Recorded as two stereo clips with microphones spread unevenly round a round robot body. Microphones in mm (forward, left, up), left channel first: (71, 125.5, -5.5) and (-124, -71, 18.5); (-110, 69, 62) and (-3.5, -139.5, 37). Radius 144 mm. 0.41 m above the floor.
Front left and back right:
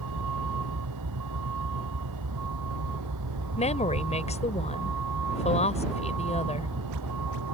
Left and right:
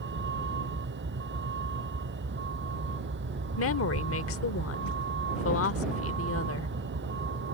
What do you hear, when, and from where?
0.0 s a vehicle: 105° right
3.6 s a woman speaking: 105° left